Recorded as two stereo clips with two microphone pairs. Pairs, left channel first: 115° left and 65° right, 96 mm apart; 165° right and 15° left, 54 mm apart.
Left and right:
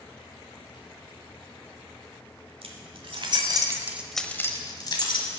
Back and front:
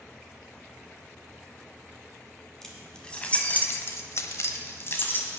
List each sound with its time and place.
2.6 s keys jangling: 80° right, 2.0 m; by 5.4 s 145° left, 1.9 m